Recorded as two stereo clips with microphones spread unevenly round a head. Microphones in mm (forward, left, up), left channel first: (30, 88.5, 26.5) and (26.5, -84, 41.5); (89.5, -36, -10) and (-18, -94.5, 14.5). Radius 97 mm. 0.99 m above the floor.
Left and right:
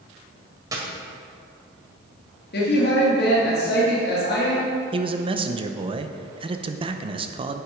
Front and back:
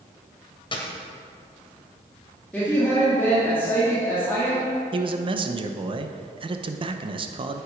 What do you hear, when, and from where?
0.7 s a dropped coin: 25° right, 1.8 m
2.5 s a woman speaking: 105° left, 2 m
4.9 s a man speaking: 130° right, 0.7 m